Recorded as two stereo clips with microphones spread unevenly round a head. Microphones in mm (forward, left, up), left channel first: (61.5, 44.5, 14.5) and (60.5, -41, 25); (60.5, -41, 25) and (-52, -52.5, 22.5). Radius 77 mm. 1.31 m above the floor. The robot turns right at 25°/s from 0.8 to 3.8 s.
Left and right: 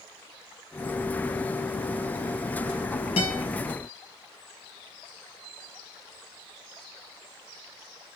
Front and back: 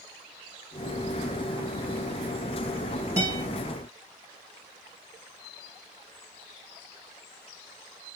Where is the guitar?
110° left, 3.5 m; by 3.4 s 120° left, 3.5 m.